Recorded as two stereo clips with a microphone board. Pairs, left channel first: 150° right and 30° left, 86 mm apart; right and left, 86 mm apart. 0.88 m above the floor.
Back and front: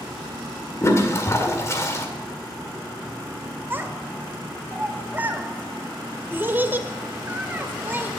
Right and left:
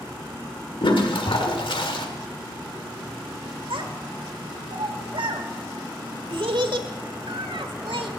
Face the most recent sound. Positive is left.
turn(degrees=95)